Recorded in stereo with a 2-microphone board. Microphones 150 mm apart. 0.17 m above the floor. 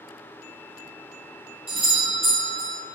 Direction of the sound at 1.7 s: 35° right (ahead or behind).